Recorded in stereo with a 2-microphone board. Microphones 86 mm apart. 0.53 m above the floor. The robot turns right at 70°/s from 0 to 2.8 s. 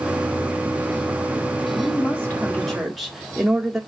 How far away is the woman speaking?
About 0.9 m.